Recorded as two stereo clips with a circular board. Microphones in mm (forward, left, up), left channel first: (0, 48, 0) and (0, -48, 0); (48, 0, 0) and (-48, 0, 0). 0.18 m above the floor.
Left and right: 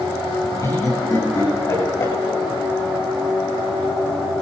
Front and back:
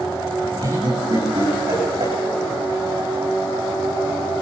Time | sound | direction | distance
0.6 | laughter | 140° left | 10 m